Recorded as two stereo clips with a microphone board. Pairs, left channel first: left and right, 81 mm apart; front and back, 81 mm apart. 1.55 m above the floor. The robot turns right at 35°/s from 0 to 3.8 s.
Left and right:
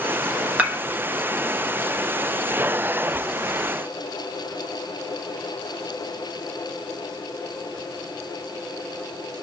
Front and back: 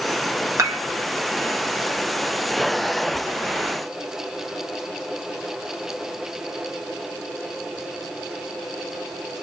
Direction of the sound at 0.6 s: 160° right.